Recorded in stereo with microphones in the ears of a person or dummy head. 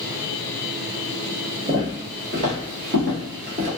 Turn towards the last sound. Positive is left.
turn(degrees=-15)  # may be behind; listen again after turning